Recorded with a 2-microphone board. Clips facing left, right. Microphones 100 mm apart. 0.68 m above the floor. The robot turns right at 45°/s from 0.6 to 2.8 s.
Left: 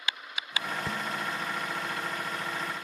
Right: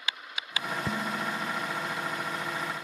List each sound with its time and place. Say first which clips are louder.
0.9 s dishes clattering: right 2 dB; 165° right; by 1.7 s 125° right